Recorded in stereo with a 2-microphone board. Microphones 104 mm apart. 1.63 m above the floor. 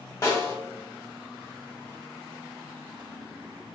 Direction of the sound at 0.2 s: 30° left (ahead or behind).